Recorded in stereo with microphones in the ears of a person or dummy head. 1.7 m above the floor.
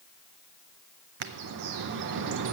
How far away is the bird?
About 0.5 m.